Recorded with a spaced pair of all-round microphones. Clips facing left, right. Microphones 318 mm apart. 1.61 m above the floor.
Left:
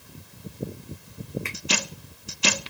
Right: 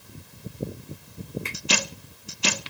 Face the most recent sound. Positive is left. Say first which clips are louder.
# even
turn(degrees=-45)  # may be behind; listen again after turning